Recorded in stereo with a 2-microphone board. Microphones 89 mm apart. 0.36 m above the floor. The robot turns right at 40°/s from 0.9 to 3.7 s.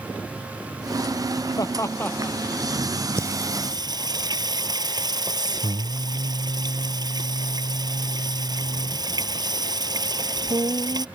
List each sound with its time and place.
1.6 s laughter: 45° left (ahead or behind); by 2.4 s 15° left (ahead or behind)
3.2 s singing: 30° right (ahead or behind); by 11.1 s 50° right (ahead or behind)